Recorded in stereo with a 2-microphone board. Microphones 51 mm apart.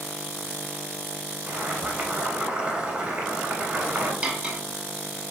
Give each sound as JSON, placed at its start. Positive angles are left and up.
{"t": 1.5, "sound": "boiling", "side_deg": -20, "distance_m": 1.1}
{"t": 4.2, "sound": "cutlery clinking", "side_deg": -25, "distance_m": 0.6}